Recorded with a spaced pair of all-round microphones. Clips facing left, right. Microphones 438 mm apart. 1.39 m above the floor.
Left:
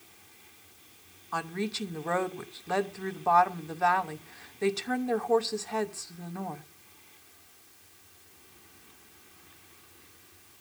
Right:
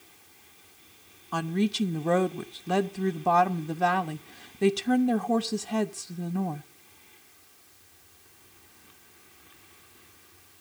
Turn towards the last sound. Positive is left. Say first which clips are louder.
# right 7 dB
turn(degrees=-45)  # may be behind; listen again after turning